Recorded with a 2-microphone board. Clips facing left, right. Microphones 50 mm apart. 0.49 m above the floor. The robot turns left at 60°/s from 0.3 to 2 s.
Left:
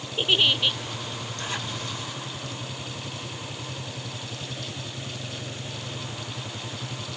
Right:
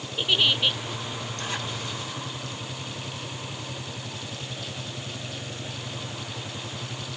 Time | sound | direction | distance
0.2 | a giggle | 15° left (ahead or behind) | ?